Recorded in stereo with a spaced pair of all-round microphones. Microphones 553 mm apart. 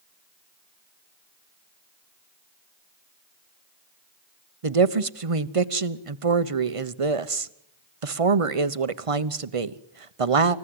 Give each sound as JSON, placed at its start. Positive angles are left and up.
{"t": 4.6, "sound": "a woman speaking", "side_deg": -70, "distance_m": 1.1}